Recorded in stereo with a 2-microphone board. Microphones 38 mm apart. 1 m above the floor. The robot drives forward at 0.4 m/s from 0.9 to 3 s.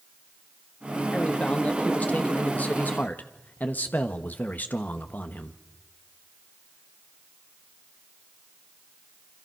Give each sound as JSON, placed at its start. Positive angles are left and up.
{"t": 1.1, "sound": "a man speaking", "side_deg": 35, "distance_m": 2.0}